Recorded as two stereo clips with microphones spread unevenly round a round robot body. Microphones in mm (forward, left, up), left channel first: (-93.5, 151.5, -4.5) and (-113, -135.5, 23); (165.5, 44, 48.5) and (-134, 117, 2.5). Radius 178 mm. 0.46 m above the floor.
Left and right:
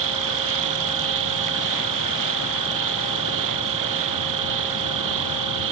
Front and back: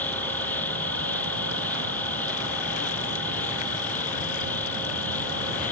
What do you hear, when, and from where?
0.0 s an insect: 100° right